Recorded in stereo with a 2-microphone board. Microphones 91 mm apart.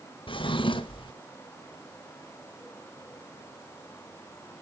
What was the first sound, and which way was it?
A drawer, 70° left (ahead or behind).